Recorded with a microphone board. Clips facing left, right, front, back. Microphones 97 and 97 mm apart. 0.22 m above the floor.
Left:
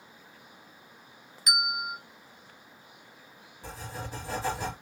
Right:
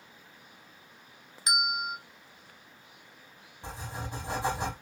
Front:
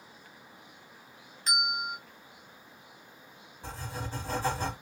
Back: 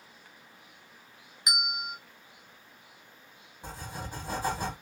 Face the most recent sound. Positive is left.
turn(degrees=-125)